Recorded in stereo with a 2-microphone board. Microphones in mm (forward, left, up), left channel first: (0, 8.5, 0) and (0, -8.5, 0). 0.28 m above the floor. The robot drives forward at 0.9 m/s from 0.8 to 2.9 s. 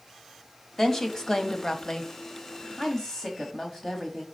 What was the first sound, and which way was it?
A woman speaking, 25° left (ahead or behind).